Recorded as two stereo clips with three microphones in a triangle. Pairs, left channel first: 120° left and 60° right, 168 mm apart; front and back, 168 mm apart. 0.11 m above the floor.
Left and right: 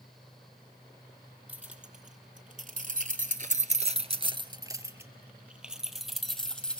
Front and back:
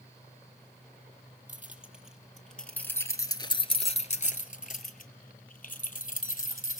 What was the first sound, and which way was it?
Keys jangling, 100° right.